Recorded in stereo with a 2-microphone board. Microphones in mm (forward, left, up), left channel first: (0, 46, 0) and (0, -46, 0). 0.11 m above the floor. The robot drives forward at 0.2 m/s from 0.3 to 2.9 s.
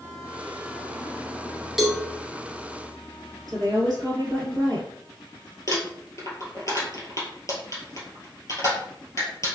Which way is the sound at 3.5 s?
50° right (ahead or behind).